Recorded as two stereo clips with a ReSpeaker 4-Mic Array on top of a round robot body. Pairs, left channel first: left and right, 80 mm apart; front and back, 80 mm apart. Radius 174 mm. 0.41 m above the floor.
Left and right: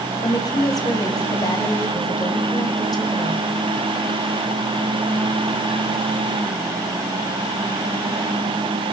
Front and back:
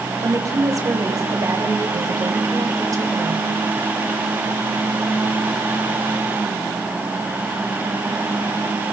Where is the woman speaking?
130° left, 3.5 m.